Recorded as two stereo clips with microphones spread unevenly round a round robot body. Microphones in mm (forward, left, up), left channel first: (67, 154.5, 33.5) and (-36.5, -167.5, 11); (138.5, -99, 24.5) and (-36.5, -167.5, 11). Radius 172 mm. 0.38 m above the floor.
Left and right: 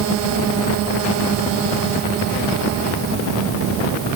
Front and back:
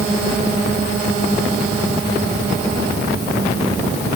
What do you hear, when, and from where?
Only background noise.